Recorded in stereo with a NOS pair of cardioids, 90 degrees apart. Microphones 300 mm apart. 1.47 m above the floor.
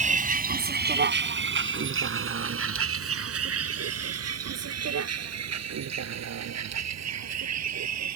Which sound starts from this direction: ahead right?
A vehicle, at 0.0 s.